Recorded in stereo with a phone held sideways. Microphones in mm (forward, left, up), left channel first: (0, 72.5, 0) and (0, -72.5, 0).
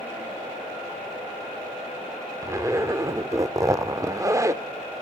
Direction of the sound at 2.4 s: 20° right (ahead or behind).